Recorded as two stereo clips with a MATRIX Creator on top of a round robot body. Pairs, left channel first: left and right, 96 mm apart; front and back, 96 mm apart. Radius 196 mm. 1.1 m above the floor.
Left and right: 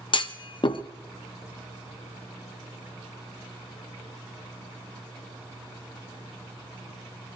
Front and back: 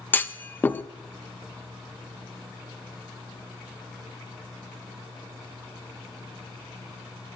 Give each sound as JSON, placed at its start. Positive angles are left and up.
{"t": 0.1, "sound": "a clunk", "azimuth_deg": 65, "distance_m": 1.0}